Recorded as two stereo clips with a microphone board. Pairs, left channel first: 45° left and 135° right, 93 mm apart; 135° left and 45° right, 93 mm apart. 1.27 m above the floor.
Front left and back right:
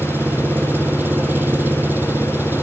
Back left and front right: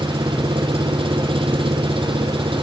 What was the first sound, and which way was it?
An engine running, 65° right.